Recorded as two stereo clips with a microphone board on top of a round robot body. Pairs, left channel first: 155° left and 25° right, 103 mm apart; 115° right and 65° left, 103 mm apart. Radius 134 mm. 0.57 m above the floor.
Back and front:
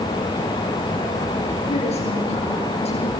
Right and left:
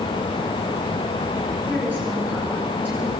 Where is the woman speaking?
140° left, 9.5 m.